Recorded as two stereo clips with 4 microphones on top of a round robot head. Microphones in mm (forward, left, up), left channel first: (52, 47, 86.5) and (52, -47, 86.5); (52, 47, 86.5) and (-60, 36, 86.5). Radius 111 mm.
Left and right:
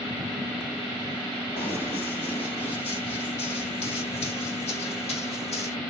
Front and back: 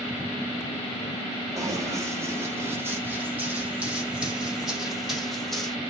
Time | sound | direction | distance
1.6 | running footsteps | 125° left | 5 m